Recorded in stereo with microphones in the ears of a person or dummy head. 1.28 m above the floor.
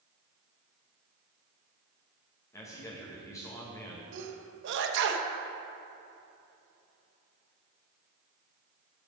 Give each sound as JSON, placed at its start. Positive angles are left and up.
{"t": 2.5, "sound": "a man speaking", "side_deg": 15, "distance_m": 1.8}
{"t": 4.1, "sound": "a sneeze", "side_deg": -65, "distance_m": 1.2}